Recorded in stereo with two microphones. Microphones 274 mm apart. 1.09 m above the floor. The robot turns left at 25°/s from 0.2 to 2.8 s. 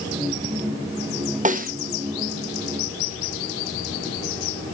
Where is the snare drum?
30° right (ahead or behind), 0.8 m; by 1.7 s 35° right (ahead or behind), 0.8 m.